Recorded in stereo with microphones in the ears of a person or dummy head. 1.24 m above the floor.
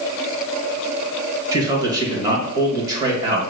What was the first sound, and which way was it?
A man speaking, 20° right (ahead or behind).